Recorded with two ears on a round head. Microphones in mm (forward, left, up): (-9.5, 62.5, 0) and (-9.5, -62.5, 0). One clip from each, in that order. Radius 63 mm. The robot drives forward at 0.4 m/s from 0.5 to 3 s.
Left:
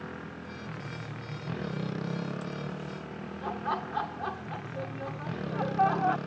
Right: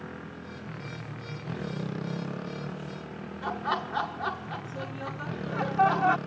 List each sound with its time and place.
0.0 s a motorcycle: 10° left (ahead or behind); by 6.3 s centre (ahead or behind)
3.4 s laughter: 40° right (ahead or behind)